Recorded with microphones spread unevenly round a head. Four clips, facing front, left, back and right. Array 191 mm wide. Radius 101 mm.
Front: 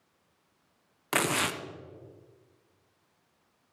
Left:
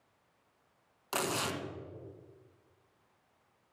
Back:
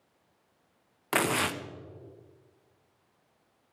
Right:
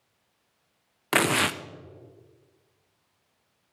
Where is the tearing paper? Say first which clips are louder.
Right 10 dB, back 1 dB; 85° right, 0.9 m.